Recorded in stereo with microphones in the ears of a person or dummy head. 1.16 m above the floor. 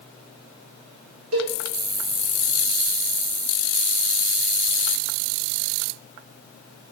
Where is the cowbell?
70° right (ahead or behind), 1.2 m.